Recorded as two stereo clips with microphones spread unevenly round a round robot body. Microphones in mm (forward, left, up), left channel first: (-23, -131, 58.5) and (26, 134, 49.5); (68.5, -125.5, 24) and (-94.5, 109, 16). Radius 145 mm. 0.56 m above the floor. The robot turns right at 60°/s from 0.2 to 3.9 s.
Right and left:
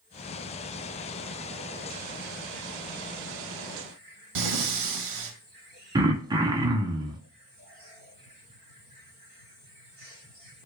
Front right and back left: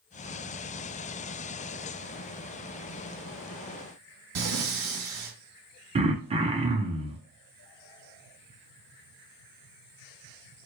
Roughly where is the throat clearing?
Behind left.